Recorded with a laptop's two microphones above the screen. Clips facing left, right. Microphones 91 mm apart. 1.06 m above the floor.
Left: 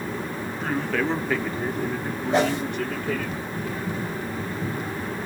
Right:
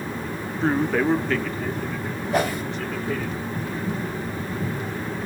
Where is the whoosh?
25° left (ahead or behind), 1.2 m.